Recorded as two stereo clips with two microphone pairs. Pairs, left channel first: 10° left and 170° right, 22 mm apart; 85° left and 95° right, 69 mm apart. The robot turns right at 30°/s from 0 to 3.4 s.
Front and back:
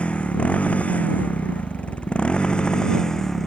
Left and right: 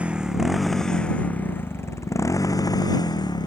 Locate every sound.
0.0 s a motorcycle: 25° right; by 3.5 s 80° left